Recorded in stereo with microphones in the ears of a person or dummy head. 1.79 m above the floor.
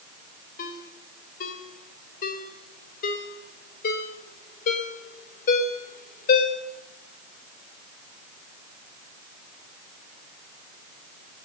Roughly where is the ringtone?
Left.